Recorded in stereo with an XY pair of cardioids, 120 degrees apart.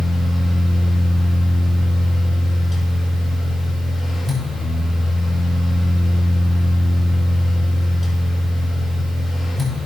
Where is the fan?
15° left, 5.5 m.